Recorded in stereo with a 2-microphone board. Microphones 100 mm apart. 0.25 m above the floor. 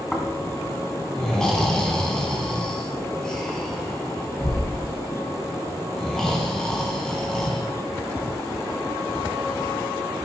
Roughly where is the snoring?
Centre.